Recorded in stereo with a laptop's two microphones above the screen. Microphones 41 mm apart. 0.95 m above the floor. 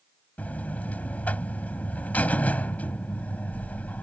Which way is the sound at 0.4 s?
40° left (ahead or behind).